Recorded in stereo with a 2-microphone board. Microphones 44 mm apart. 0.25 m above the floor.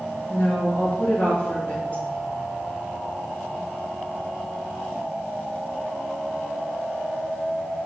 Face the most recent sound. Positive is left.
turn(degrees=35)  # may be behind; listen again after turning